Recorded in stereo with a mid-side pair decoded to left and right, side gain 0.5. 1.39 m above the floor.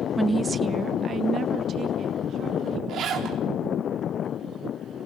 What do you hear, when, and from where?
0.2 s a woman speaking: straight ahead, 0.5 m; by 2.8 s 55° right, 3.5 m
2.9 s a zipper: 65° right, 4 m